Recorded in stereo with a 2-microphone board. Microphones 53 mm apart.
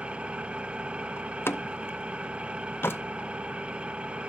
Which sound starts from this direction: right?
An engine running, at 0.0 s.